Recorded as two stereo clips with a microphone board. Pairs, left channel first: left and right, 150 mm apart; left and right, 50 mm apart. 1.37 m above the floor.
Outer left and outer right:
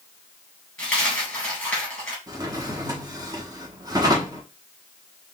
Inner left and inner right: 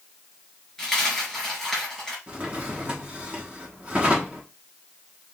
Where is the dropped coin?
5° left (ahead or behind), 2.5 m.